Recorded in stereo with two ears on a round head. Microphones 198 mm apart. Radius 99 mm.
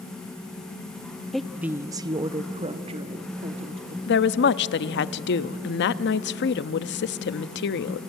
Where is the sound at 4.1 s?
55° left (ahead or behind), 0.7 m.